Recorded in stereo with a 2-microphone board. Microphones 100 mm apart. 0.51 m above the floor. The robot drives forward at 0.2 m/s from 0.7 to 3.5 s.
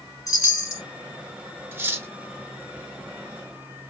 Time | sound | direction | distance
0.3 | a chime | 35° left (ahead or behind) | 1.0 m
1.7 | cutlery clinking | 25° right (ahead or behind) | 0.7 m